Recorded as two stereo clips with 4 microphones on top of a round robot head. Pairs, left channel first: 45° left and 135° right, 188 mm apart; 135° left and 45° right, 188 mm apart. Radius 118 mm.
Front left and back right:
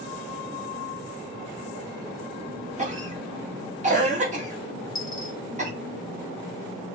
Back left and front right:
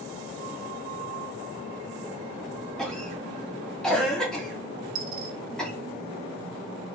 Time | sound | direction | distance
2.8 | a cough | 140° right | 1.3 m
5.0 | a dropped coin | 30° right | 0.5 m